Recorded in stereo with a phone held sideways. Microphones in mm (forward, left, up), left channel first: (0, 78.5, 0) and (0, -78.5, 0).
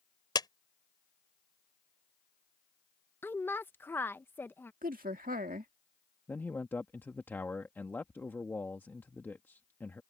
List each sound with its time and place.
0.3 s a clap: 25° left (ahead or behind)
3.2 s a woman speaking: 15° left (ahead or behind)
4.8 s a woman speaking: 65° right (ahead or behind)
6.3 s a man speaking: 15° left (ahead or behind)